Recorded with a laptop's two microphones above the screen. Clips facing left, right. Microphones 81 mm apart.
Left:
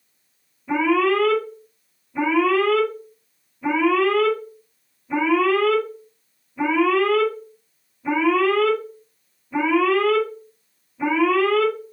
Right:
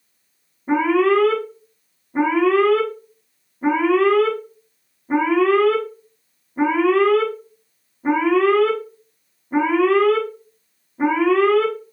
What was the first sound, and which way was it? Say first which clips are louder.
An alarm: right 3 dB; 50° right (ahead or behind).